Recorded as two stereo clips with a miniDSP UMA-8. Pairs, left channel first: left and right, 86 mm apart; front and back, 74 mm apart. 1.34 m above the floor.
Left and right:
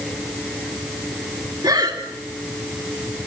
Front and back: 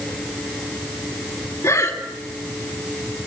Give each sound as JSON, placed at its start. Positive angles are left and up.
{"t": 1.6, "sound": "breathing", "azimuth_deg": -50, "distance_m": 3.0}